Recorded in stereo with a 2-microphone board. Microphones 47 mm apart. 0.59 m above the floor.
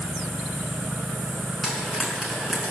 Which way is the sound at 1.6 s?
5° right (ahead or behind).